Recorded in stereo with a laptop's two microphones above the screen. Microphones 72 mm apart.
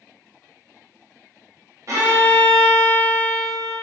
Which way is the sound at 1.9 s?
45° right (ahead or behind).